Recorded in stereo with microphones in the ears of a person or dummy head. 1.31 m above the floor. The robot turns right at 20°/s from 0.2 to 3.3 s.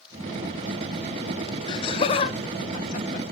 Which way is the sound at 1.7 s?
25° left (ahead or behind).